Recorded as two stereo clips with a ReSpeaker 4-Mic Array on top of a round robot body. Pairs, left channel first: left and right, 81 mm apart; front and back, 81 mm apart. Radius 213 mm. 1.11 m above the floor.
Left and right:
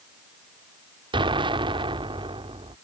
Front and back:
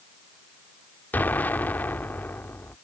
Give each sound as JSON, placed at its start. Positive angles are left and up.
{"t": 1.1, "sound": "an explosion", "azimuth_deg": -70}